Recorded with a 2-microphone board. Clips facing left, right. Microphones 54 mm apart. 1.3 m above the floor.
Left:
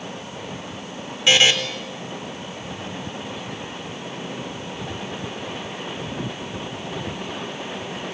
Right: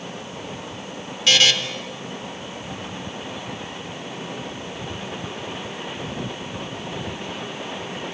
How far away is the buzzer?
About 2.5 m.